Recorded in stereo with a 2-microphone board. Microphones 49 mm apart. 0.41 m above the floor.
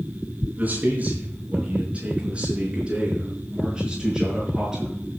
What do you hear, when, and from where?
0.6 s a man speaking: 35° right (ahead or behind), 4.5 m; by 4.9 s 15° right (ahead or behind), 5.5 m